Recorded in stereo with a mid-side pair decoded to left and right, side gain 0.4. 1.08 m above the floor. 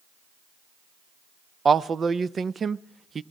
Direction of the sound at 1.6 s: 45° right.